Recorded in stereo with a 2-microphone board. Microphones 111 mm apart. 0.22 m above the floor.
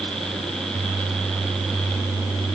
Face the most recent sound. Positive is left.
No sound to turn to.